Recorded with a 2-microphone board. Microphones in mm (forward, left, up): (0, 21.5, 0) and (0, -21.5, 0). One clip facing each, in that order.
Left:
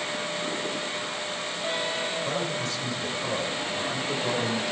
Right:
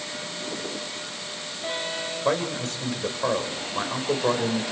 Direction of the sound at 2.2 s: 50° right (ahead or behind).